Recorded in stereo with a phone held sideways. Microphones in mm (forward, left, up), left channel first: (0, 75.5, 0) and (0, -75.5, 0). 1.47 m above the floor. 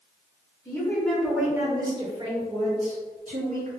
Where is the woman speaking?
20° left (ahead or behind), 1.1 m; by 3.7 s 65° right (ahead or behind), 1.9 m.